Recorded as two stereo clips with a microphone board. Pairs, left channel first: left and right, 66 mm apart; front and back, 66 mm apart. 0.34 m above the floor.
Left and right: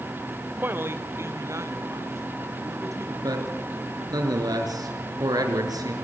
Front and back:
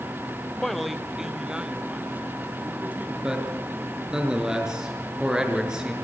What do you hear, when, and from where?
0.6 s a man speaking: 80° right, 1.2 m; by 3.1 s 115° right, 3 m
3.2 s a man speaking: 100° right, 4.5 m